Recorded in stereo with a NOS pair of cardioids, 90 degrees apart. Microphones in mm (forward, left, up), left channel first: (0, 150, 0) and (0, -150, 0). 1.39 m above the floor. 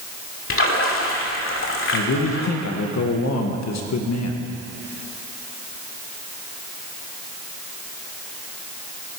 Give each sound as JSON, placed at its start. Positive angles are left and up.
{"t": 0.5, "sound": "a splash", "azimuth_deg": 45, "distance_m": 2.5}
{"t": 1.9, "sound": "a man speaking", "azimuth_deg": 65, "distance_m": 1.8}